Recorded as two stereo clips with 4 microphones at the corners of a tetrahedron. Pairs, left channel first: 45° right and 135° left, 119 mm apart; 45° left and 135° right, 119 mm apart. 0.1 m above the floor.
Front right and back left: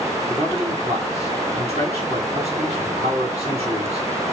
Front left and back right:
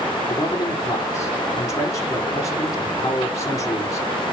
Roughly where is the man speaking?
Left.